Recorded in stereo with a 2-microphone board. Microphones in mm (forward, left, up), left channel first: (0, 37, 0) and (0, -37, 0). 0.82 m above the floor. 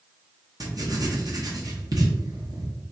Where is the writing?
60° right (ahead or behind), 1.0 m.